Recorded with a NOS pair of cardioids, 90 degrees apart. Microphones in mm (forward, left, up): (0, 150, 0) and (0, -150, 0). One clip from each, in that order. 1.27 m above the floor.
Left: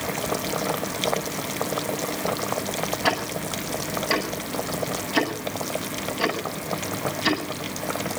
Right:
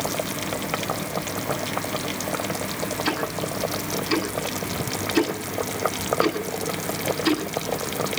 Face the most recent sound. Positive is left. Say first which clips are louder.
# left 2 dB
turn(degrees=60)